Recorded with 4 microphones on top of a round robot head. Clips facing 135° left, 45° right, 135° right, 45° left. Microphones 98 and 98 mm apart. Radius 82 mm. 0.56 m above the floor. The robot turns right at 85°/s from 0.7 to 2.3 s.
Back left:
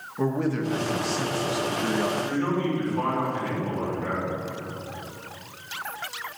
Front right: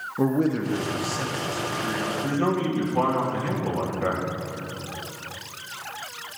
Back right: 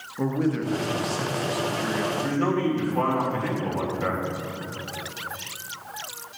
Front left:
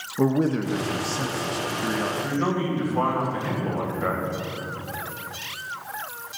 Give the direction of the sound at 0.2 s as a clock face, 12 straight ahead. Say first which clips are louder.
Front right 3 dB, front left 3 dB; 12 o'clock.